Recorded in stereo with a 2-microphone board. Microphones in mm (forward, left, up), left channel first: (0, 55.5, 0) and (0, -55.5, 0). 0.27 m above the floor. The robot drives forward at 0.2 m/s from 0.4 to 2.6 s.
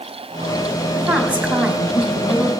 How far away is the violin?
No violin in this recording.